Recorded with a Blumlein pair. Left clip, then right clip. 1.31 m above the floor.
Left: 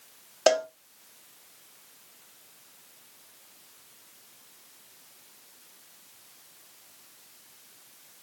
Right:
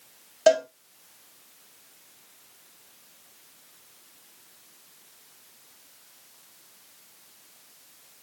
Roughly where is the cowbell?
Ahead.